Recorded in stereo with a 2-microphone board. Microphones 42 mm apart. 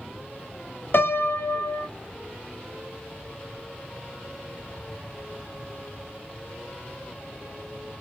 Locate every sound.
0.9 s a piano: 55° left (ahead or behind), 0.6 m